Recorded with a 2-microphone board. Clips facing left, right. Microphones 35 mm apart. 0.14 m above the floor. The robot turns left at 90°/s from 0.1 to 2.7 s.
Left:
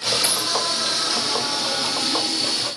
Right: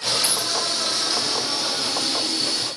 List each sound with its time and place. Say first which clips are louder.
0.2 s a dropped coin: left 1 dB; 80° left, 1.6 m; by 0.5 s 55° left (ahead or behind), 1.6 m